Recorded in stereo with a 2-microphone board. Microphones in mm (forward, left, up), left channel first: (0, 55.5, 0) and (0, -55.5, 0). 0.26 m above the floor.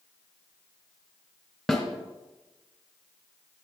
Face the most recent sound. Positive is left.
turn(degrees=0)  # may be behind; listen again after turning